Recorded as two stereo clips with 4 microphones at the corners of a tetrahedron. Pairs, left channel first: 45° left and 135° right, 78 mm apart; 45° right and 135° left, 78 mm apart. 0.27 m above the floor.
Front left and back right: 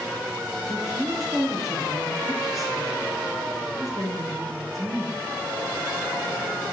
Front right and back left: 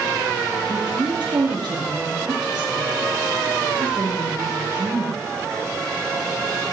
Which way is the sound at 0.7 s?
140° left.